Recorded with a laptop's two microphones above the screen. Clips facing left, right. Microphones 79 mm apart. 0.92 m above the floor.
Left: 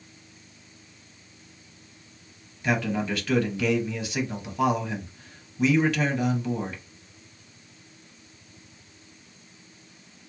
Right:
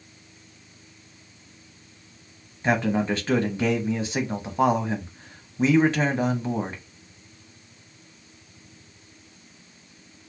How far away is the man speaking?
About 0.8 m.